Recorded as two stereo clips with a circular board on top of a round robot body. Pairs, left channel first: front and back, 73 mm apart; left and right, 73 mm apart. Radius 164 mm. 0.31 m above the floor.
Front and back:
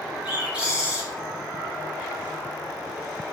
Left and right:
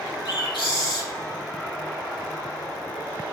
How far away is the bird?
About 3.5 m.